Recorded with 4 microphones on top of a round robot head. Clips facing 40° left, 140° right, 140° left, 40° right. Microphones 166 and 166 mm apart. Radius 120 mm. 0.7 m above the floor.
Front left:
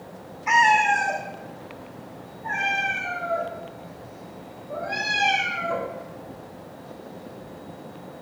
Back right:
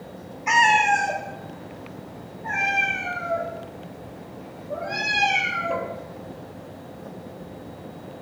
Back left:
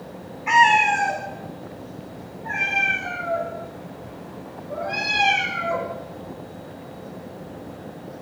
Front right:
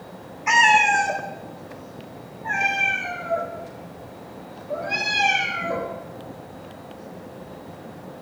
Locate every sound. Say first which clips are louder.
0.5 s a cat meowing: even, back left 1 dB; 85° right, 0.8 m; by 5.9 s 75° right, 5 m